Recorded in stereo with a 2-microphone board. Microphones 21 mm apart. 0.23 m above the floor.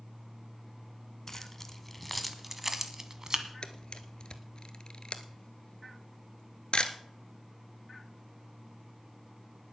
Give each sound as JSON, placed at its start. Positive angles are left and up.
{"t": 1.3, "sound": "keys jangling", "side_deg": 20, "distance_m": 1.4}
{"t": 3.6, "sound": "a camera shutter", "side_deg": 45, "distance_m": 1.0}